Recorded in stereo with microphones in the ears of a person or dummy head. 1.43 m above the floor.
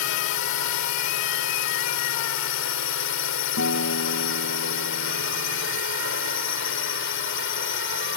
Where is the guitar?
80° left.